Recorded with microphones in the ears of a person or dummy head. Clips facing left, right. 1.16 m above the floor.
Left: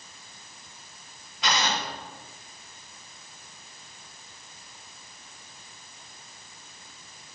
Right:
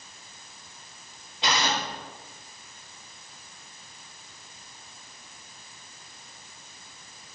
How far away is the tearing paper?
About 2.5 m.